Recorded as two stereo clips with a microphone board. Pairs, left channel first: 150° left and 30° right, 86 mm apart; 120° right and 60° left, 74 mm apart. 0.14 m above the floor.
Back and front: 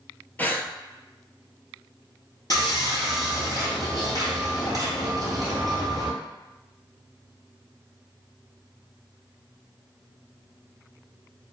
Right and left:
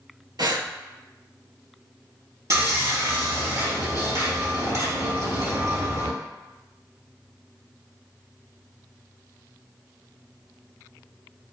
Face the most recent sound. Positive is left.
turn(degrees=105)